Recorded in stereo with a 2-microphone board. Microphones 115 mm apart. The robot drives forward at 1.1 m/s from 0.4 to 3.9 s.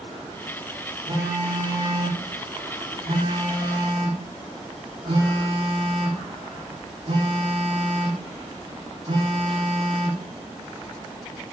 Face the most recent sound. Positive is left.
turn(degrees=-50)  # may be behind; listen again after turning